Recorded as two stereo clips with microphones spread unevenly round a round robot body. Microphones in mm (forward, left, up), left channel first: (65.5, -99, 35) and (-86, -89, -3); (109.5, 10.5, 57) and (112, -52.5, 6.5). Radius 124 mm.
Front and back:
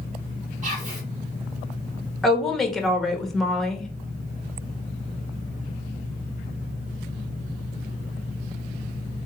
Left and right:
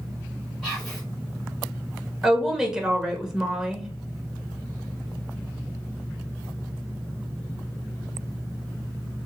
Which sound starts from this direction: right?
A woman speaking, at 2.2 s.